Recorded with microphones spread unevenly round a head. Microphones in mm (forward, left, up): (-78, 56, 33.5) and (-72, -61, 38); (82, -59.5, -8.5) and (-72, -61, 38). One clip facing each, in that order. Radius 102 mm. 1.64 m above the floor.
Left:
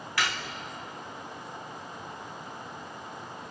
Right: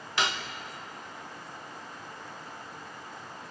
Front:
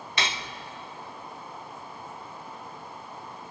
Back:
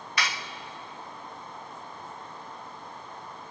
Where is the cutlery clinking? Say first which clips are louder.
Right 1 dB, front 1 dB; 65° right, 0.7 m.